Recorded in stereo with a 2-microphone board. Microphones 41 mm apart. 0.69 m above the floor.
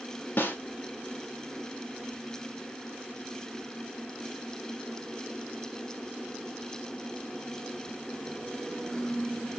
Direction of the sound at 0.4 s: 55° left (ahead or behind).